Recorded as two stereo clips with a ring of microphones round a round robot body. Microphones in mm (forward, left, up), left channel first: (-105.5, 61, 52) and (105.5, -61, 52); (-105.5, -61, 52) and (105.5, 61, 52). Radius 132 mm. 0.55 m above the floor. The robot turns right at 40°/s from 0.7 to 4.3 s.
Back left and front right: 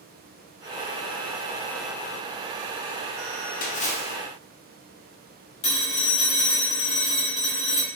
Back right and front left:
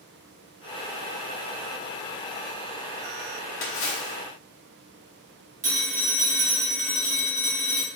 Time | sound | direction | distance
3.6 | a splash | 165° right | 0.6 m
5.6 | a phone ringing | 90° left | 0.9 m